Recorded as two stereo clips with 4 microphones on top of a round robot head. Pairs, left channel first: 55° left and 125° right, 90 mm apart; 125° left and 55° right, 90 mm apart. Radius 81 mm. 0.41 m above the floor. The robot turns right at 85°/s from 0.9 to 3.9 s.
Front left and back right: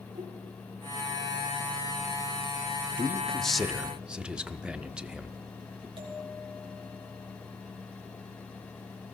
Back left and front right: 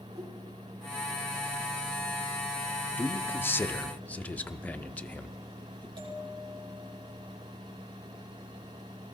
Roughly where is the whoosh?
Right.